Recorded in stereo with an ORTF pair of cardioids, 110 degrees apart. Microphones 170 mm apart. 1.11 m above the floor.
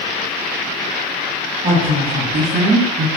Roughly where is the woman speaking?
Ahead right.